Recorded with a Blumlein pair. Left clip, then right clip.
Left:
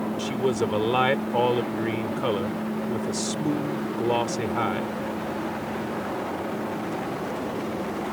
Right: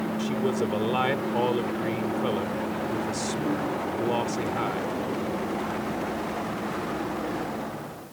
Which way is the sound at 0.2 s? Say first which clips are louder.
Left 3 dB; 15° left.